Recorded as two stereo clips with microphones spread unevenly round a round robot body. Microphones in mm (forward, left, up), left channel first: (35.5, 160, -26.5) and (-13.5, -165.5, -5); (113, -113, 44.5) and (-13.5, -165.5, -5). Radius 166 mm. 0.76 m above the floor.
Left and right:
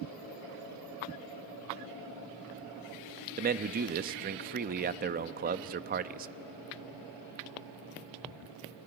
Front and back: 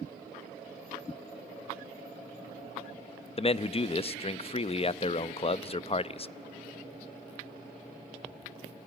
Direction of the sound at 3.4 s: 40° right.